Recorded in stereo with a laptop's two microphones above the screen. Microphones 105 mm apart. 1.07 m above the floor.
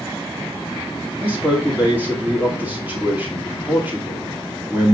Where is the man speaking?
20° right (ahead or behind), 2.5 m.